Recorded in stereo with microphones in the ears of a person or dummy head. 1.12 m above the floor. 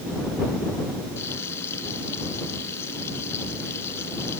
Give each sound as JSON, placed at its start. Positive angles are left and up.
{"t": 1.2, "sound": "frying", "side_deg": 20}